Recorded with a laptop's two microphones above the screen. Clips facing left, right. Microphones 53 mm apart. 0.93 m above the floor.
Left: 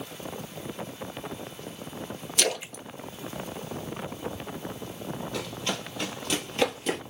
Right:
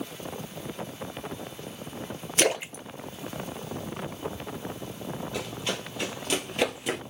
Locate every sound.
2.4 s a splash: 25° right (ahead or behind), 0.6 m
5.3 s running footsteps: 15° right (ahead or behind), 1.9 m; by 7.0 s 10° right (ahead or behind), 1.2 m